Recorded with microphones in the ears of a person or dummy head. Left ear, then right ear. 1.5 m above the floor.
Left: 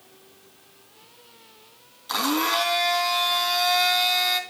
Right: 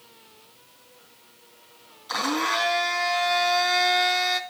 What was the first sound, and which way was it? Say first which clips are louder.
A blender: left 1 dB; centre (ahead or behind).